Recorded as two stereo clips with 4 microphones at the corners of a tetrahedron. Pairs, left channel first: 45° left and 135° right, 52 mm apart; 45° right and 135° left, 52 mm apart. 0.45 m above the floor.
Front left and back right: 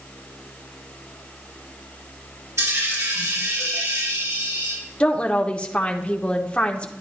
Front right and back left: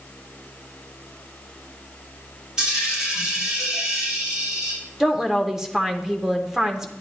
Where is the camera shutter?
I don't hear a camera shutter.